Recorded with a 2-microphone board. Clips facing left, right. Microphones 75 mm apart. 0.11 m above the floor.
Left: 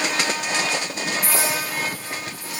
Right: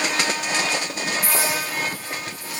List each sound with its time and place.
1.2 s a clink: 20° left (ahead or behind), 4 m